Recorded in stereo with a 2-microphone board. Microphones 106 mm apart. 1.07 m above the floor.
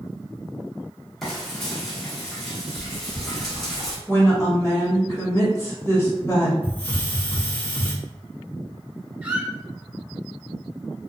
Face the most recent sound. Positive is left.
turn(degrees=-15)  # may be behind; listen again after turning